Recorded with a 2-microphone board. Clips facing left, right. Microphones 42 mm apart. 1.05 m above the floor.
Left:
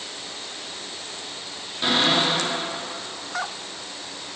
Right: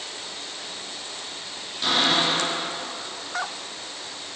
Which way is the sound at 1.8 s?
20° left (ahead or behind).